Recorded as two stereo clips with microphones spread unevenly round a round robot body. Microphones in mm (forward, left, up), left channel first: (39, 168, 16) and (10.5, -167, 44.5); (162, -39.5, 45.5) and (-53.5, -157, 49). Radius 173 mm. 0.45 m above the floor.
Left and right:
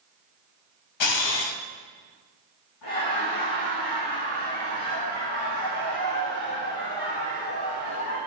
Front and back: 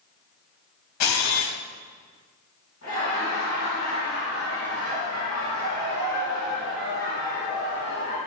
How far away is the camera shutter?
About 1.2 m.